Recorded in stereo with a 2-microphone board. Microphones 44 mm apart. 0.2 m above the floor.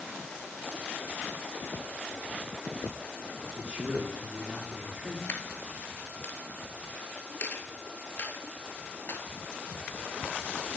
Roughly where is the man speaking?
Right.